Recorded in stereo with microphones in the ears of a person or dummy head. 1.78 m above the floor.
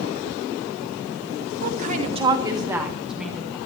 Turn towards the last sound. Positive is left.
turn(degrees=10)  # may be behind; listen again after turning